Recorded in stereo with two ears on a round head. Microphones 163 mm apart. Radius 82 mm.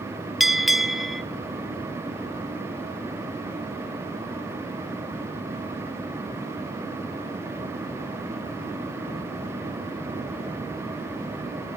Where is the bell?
Centre (ahead or behind), 0.6 m.